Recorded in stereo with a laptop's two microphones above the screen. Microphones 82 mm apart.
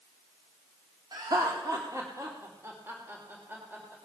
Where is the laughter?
55° right (ahead or behind), 1.8 m; by 4.0 s 20° right (ahead or behind), 3.5 m.